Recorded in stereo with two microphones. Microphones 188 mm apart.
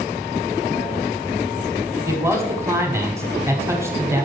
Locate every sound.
2.1 s a man speaking: 15° right (ahead or behind), 1.4 m